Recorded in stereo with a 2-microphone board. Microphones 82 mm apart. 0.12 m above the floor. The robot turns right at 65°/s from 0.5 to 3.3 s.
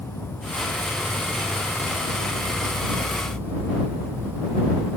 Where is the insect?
25° left; by 5.0 s 155° right.